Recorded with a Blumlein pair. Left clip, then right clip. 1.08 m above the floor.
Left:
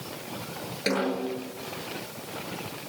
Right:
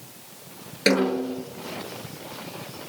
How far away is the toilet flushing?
No toilet flushing in this recording.